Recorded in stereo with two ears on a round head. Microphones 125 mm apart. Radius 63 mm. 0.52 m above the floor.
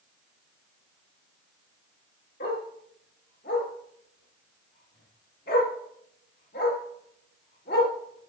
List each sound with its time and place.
2.4 s a dog barking: 80° left, 4 m